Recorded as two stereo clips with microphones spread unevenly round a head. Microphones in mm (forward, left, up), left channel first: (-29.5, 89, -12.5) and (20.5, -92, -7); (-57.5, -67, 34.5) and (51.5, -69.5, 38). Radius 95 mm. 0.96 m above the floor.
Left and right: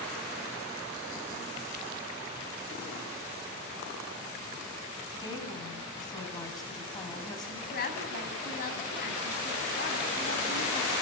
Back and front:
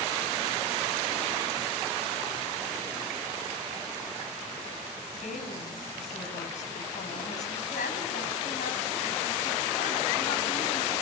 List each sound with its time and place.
5.1 s a woman speaking: 175° left, 8.5 m
7.7 s a woman speaking: 150° left, 6.5 m